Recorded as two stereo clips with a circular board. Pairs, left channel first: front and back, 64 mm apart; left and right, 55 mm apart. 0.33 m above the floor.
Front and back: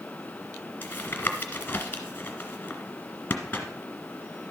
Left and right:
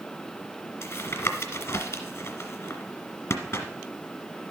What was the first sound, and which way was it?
Tapping, 60° left.